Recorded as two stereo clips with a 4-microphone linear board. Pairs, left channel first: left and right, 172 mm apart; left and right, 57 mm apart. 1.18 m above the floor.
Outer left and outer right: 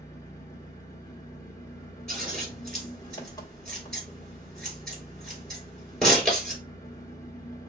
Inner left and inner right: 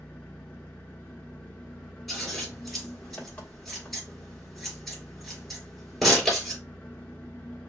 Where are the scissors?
Centre (ahead or behind), 3 m.